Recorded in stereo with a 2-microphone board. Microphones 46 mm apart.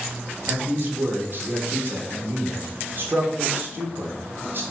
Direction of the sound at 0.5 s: 50° right (ahead or behind).